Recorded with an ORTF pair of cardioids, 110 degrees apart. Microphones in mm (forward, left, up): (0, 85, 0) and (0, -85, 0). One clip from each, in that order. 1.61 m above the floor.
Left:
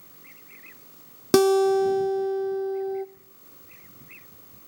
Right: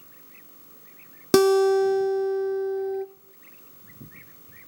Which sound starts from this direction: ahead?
A guitar, at 1.3 s.